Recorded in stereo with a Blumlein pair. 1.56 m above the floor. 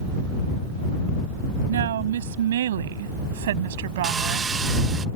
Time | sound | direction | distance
1.7 | a woman speaking | 60° right | ?
4.0 | sawing | 20° right | ?